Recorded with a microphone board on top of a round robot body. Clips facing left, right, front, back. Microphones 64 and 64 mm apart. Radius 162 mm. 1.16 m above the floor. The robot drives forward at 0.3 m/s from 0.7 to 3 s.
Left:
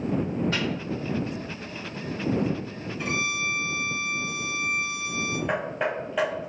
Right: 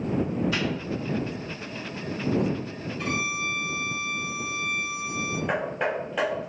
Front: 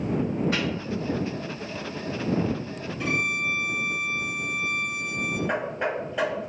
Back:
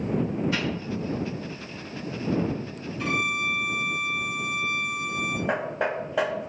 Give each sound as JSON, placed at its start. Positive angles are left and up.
{"t": 0.5, "sound": "a microwave", "azimuth_deg": 45, "distance_m": 1.8}
{"t": 3.0, "sound": "a violin", "azimuth_deg": 170, "distance_m": 1.9}
{"t": 5.5, "sound": "hammering", "azimuth_deg": 180, "distance_m": 0.7}